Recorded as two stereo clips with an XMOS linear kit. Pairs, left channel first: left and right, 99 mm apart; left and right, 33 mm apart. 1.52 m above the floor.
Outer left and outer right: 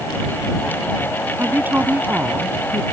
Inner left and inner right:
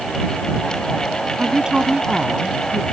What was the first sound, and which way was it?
A woman speaking, 20° right (ahead or behind).